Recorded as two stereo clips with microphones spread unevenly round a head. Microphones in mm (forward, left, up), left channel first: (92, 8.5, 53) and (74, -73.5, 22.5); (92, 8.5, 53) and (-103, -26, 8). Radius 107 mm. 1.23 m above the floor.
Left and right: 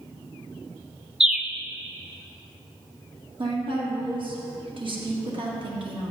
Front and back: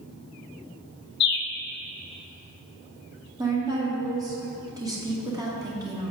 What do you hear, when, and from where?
1.2 s a bird: 30° right, 0.8 m
3.4 s a woman speaking: 95° right, 1.9 m